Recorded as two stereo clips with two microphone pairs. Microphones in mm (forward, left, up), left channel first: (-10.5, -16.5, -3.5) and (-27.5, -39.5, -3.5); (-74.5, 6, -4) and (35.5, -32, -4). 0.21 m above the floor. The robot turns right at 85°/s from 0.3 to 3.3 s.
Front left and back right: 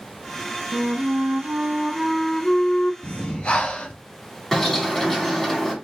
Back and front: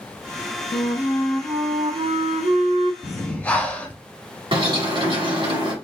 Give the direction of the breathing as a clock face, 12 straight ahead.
10 o'clock.